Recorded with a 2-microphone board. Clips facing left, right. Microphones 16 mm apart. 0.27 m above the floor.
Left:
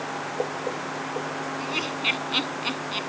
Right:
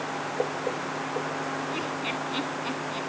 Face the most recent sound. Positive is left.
turn(degrees=60)  # may be behind; listen again after turning